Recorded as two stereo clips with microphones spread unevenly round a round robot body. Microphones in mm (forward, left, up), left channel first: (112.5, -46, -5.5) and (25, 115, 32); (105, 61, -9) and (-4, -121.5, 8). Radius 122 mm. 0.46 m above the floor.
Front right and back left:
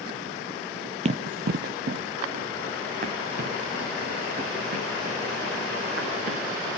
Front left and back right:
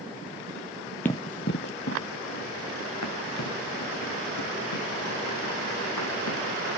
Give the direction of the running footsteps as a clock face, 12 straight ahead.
7 o'clock.